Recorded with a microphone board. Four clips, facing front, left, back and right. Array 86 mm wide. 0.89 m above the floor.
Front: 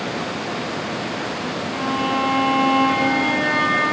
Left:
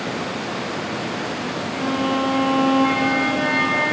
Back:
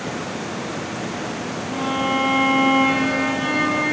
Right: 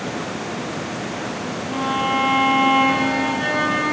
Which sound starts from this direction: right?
A violin, at 1.7 s.